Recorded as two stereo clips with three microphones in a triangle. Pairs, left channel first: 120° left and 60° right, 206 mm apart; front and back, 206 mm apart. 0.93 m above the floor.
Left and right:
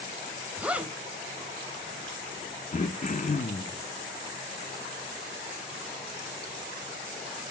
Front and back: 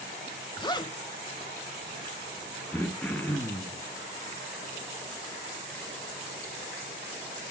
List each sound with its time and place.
0.6 s a zipper: 15° left, 0.7 m
2.7 s throat clearing: 80° left, 0.9 m